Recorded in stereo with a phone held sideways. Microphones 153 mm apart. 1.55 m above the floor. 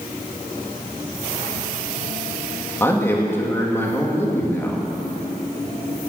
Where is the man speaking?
15° left (ahead or behind), 2.5 m.